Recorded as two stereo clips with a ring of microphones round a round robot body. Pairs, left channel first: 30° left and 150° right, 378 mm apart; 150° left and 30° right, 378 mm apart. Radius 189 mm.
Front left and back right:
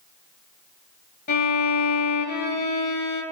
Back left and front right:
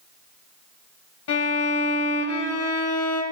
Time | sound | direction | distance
1.3 | a violin | 95° left | 1.3 m